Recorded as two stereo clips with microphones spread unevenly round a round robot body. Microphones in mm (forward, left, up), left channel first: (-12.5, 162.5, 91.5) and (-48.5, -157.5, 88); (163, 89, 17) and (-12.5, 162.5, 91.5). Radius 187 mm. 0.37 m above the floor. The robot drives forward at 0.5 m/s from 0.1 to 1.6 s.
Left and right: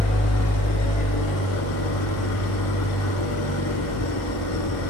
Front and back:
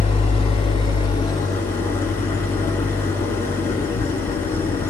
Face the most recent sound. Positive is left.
turn(degrees=55)